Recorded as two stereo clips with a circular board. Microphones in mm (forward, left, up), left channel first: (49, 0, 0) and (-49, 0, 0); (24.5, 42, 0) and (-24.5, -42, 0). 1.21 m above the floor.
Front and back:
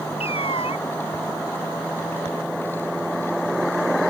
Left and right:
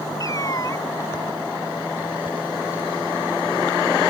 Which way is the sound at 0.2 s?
5° left.